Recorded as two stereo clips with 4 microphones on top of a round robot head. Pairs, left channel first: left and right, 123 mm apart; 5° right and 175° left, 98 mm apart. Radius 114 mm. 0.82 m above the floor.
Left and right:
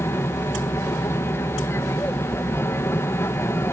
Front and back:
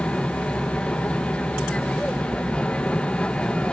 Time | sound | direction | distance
0.0 | an aircraft | 55° left | ?